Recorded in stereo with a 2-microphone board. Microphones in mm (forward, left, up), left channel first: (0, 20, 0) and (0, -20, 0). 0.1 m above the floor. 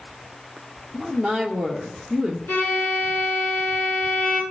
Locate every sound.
0.9 s a woman speaking: 5° left (ahead or behind), 2.0 m
2.5 s a violin: 55° left (ahead or behind), 3 m